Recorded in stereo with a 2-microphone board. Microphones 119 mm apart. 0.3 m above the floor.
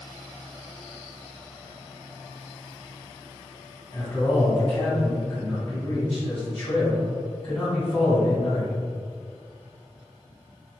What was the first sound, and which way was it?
A man speaking, 30° left (ahead or behind).